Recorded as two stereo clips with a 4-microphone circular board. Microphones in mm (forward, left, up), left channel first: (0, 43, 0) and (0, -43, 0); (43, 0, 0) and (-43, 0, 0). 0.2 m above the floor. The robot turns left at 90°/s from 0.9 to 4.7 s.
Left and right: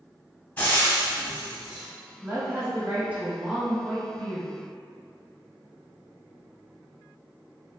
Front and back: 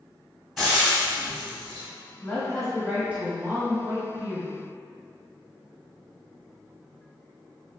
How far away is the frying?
About 0.9 m.